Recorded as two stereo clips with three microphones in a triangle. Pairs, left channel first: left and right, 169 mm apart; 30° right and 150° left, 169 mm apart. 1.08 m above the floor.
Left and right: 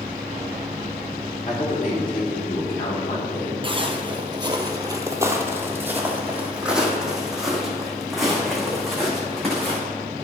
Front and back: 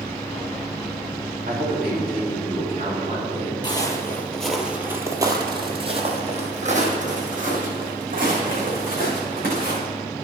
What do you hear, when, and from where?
1.5 s a man speaking: 130° left, 3 m; by 3.5 s 105° left, 3.5 m
3.6 s footsteps: 70° right, 1.2 m; by 9.8 s 175° left, 4 m